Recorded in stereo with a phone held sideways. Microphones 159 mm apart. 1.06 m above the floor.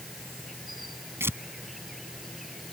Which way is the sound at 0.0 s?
Centre (ahead or behind).